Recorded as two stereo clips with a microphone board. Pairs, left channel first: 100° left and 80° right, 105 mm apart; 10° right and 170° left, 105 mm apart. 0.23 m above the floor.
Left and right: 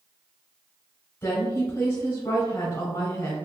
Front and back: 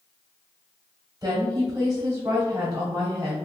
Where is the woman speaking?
150° left, 1.5 m.